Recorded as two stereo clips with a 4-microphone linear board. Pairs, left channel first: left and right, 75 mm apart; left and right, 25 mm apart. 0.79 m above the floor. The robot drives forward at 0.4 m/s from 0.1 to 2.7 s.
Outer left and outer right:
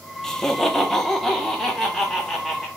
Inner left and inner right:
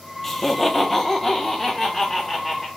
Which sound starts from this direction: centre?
Laughter, at 0.2 s.